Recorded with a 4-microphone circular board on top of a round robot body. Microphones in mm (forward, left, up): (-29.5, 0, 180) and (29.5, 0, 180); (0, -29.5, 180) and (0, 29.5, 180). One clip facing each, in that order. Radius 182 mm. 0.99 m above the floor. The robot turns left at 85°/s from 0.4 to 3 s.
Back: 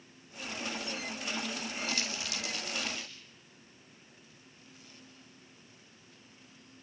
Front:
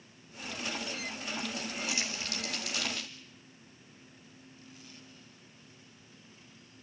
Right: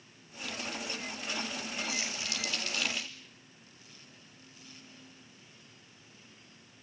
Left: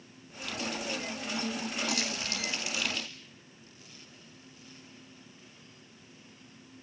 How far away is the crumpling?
About 7 m.